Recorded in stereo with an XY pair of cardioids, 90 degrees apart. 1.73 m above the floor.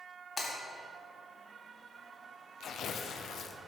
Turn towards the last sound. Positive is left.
turn(degrees=70)